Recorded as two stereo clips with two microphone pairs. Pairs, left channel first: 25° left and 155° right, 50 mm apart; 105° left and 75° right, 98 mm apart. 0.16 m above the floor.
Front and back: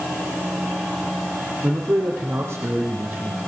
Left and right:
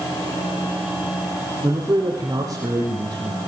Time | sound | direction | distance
1.6 | a man speaking | 120° right | 5 m